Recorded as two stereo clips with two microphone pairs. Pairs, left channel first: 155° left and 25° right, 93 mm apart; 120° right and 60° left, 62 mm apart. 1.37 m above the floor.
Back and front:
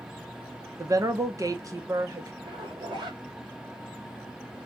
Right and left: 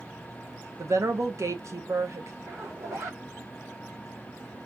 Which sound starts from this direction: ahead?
A zipper, at 2.4 s.